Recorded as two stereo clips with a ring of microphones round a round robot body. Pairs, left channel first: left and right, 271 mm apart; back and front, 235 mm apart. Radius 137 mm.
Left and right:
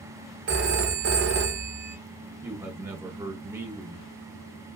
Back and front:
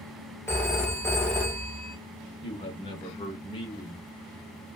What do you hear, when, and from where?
0.5 s a phone ringing: 105° right, 0.7 m
2.4 s a man speaking: 155° right, 0.8 m